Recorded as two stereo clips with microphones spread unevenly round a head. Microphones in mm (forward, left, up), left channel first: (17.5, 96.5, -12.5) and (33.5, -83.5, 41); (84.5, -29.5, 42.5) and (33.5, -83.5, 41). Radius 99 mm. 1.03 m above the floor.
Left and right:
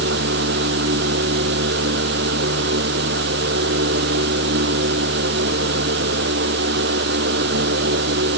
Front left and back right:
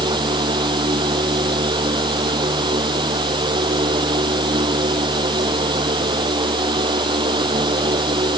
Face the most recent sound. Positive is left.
turn(degrees=-125)